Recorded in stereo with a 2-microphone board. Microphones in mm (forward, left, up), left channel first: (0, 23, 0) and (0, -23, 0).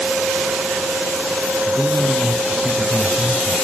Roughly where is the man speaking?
Left.